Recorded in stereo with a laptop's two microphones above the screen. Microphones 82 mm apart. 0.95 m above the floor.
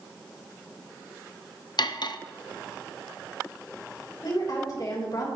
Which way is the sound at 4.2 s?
55° left (ahead or behind).